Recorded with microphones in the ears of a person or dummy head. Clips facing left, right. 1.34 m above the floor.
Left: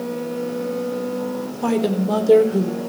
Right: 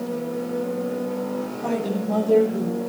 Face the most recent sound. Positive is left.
turn(degrees=80)